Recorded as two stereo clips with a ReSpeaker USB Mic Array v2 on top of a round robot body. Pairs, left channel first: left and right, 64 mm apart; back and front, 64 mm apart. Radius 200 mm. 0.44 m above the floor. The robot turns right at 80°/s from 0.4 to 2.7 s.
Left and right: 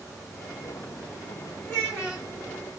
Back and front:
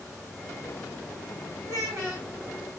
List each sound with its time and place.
1.6 s a child speaking: 10° left, 2 m; by 2.3 s 60° left, 2 m